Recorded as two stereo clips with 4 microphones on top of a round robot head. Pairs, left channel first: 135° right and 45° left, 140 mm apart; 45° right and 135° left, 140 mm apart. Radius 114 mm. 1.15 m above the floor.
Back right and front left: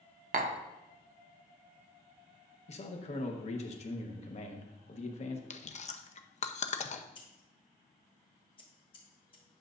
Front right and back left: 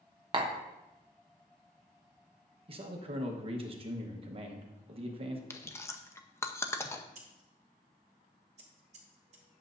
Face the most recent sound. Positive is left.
turn(degrees=175)